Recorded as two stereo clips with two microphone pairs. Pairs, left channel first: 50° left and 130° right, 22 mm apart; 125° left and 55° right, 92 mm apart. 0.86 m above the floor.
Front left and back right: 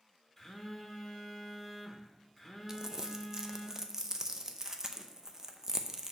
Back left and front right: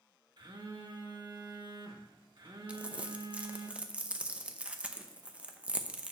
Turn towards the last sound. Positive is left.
turn(degrees=-110)